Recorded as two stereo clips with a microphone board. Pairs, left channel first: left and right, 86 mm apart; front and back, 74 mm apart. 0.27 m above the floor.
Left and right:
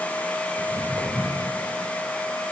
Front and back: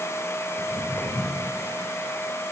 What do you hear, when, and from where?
0.6 s footsteps: 40° right, 3.5 m